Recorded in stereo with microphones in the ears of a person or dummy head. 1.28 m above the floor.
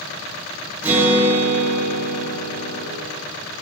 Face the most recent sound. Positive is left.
turn(degrees=-15)  # may be behind; listen again after turning